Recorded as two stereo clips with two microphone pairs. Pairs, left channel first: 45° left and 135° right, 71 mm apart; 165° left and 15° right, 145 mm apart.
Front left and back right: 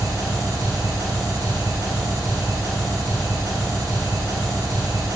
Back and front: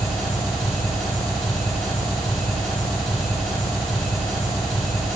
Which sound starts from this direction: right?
An engine running, at 0.0 s.